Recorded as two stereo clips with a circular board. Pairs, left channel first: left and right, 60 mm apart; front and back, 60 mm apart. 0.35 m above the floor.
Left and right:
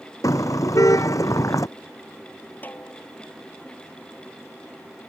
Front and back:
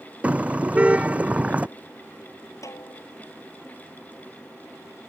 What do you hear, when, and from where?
0.2 s a car horn: 110° left
2.6 s a snare drum: 30° left